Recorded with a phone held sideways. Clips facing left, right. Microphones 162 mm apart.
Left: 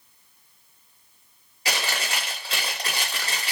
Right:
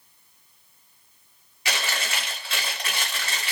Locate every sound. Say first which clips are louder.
1.6 s chewing: left 1 dB; 35° left (ahead or behind), 1.2 m